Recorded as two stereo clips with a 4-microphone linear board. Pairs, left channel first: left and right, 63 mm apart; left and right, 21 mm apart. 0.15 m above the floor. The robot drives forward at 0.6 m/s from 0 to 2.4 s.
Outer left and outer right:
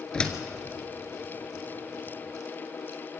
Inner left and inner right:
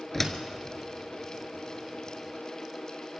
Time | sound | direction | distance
0.1 | a door slam | 15° left (ahead or behind) | 1.5 m